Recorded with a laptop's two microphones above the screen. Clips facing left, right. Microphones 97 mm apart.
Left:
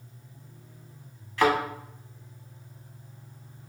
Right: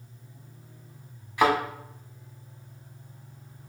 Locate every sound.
1.4 s a thud: 15° right (ahead or behind), 0.8 m